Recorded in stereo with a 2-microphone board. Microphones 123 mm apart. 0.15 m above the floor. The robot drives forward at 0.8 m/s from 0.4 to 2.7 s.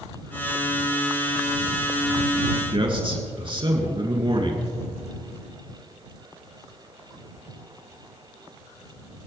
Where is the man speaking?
45° right (ahead or behind), 2 m.